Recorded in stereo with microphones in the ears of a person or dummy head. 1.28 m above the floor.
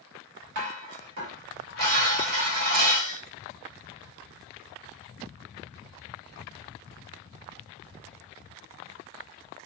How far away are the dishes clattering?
About 1.4 m.